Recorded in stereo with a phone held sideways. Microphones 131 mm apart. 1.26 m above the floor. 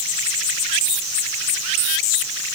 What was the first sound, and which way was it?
Only background noise.